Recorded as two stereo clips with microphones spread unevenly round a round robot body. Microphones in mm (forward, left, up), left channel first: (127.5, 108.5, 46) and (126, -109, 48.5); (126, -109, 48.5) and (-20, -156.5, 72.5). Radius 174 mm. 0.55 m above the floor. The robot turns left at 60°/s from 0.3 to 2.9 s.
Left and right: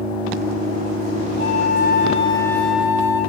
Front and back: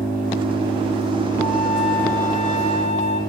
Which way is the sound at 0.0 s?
150° right.